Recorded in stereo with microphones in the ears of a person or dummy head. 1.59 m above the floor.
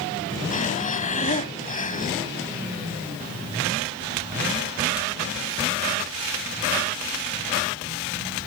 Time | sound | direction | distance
0.5 | breathing | 40° left (ahead or behind) | ?